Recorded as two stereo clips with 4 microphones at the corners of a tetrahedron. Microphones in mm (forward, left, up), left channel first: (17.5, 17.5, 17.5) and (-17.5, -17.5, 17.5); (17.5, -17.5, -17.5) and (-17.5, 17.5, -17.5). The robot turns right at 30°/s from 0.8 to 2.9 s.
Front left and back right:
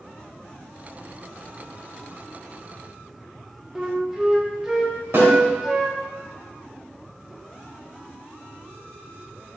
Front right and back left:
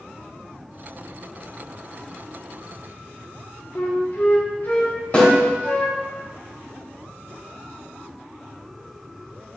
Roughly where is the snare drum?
Right.